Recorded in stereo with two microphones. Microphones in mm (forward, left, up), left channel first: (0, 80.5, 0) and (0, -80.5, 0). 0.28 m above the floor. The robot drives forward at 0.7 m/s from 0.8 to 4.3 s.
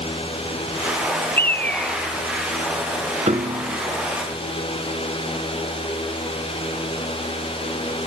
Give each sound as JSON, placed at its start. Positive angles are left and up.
{"t": 1.4, "sound": "a bird", "side_deg": 15, "distance_m": 0.5}
{"t": 3.3, "sound": "a piano", "side_deg": -45, "distance_m": 0.9}